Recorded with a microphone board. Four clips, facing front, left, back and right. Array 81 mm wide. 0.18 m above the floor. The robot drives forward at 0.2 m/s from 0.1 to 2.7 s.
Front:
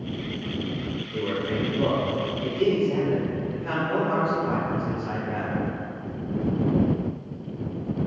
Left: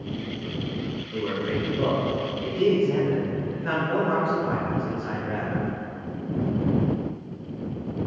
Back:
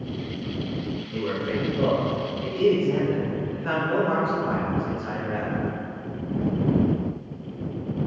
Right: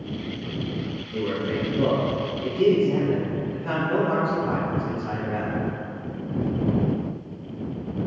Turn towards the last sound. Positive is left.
turn(degrees=150)